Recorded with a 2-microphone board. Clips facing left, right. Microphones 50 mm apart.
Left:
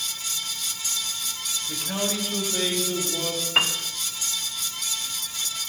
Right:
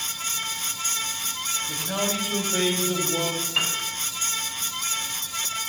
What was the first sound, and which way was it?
A man speaking, centre (ahead or behind).